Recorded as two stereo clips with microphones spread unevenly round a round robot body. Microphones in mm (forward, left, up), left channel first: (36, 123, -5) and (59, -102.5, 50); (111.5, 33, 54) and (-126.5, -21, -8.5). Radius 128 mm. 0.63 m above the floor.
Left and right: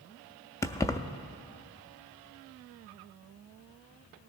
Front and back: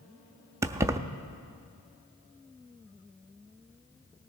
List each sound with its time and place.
0.6 s keys jangling: 145° left, 0.5 m